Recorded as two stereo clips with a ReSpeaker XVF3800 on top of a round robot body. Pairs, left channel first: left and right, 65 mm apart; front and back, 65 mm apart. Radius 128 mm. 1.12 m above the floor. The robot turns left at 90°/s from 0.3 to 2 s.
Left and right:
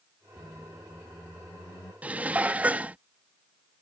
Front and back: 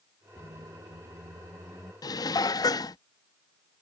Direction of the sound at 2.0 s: 20° right.